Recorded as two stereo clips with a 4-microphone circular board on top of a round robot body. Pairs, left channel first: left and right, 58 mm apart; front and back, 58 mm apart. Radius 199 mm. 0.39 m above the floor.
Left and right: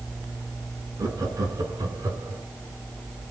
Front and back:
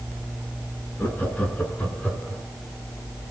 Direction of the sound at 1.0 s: 60° right.